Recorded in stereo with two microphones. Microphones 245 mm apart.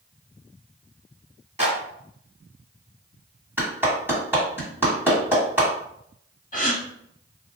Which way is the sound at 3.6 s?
10° right (ahead or behind).